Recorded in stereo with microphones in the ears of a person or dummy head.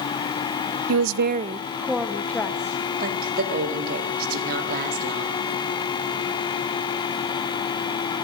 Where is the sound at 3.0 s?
45° right (ahead or behind), 3.5 m.